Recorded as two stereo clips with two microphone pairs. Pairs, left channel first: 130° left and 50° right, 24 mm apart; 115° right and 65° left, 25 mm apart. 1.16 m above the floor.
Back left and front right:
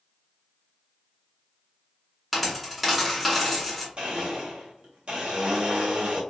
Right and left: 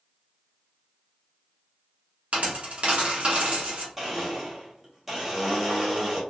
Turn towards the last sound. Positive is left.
turn(degrees=-10)